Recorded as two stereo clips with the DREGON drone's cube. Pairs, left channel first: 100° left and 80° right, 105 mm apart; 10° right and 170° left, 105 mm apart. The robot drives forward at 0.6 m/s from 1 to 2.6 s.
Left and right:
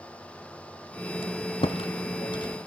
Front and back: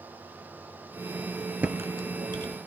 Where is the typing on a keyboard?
95° left, 0.6 m; by 2.6 s 140° left, 0.9 m.